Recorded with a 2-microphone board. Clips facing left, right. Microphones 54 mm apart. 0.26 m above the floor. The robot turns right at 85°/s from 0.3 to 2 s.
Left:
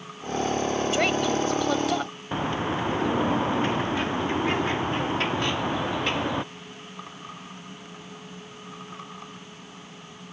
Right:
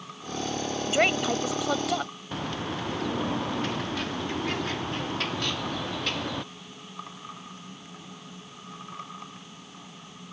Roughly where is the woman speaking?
Right.